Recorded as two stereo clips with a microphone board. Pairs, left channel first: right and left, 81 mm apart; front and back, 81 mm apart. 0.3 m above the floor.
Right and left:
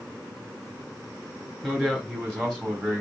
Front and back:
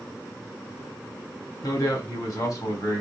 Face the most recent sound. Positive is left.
turn(degrees=-20)